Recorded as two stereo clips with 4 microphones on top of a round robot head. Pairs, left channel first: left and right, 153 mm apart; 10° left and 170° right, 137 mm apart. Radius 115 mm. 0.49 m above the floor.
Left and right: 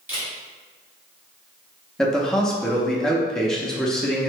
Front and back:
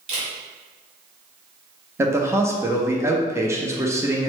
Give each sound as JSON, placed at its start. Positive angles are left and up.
{"t": 0.1, "sound": "a camera shutter", "azimuth_deg": -160, "distance_m": 1.6}
{"t": 2.0, "sound": "a man speaking", "azimuth_deg": 170, "distance_m": 0.7}